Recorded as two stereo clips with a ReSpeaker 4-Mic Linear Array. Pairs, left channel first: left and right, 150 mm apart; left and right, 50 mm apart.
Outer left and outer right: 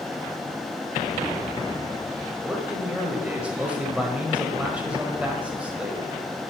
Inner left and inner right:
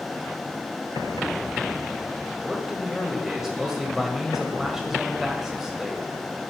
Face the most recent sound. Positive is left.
turn(degrees=-10)  # may be behind; listen again after turning